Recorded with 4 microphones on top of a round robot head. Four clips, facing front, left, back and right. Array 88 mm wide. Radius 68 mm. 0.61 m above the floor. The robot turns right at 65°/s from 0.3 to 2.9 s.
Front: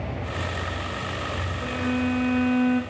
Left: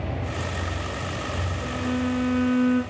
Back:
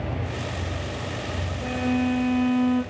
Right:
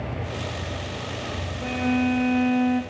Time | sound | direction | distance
1.6 | a violin | 100° right | 1.0 m